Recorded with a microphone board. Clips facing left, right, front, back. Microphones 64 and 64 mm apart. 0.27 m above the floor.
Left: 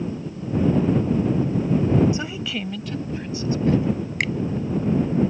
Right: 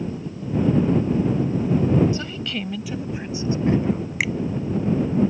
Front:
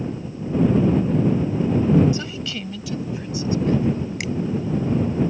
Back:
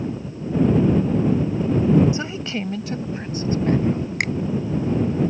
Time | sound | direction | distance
2.1 | a woman speaking | 140° left | ?
4.2 | a finger snap | 175° right | ?